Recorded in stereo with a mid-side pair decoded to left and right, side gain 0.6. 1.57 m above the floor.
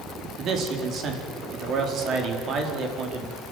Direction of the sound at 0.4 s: 50° right.